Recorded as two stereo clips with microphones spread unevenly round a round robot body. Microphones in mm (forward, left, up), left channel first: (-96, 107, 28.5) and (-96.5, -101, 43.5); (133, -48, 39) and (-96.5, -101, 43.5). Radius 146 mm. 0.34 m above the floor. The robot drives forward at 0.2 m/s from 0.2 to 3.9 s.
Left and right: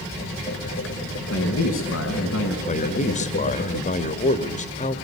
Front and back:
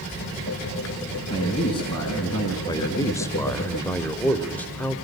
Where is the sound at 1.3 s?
85° left, 4 m; by 2.6 s 90° left, 4 m.